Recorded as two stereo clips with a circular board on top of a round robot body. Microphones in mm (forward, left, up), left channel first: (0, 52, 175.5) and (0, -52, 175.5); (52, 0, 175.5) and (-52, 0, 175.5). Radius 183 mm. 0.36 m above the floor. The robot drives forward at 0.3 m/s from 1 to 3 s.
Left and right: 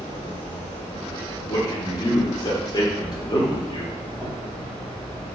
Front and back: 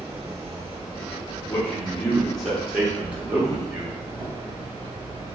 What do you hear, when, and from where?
0.0 s an insect: 155° left, 1.3 m; by 5.3 s 165° left, 1.8 m
1.5 s a man speaking: 60° left, 1.0 m; by 4.0 s 105° left, 1.0 m